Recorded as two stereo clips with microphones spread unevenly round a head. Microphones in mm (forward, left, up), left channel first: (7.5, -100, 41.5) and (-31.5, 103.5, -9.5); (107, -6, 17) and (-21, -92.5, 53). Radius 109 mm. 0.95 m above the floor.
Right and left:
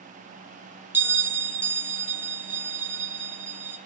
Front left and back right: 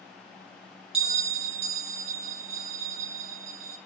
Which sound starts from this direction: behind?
A bell, at 0.9 s.